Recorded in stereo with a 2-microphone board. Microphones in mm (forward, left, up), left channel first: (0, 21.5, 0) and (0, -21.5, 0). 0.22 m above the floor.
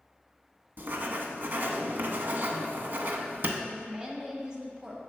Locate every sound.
0.8 s writing: 50° right (ahead or behind), 0.6 m
3.6 s a woman speaking: 20° right (ahead or behind), 1.0 m